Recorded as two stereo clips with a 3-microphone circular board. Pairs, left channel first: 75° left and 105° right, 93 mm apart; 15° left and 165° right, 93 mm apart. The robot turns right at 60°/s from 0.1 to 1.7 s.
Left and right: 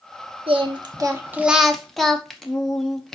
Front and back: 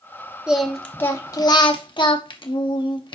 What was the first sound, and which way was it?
Singing, 85° right.